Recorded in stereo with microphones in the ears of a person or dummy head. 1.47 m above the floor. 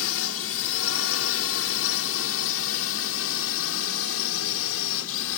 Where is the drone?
75° left (ahead or behind).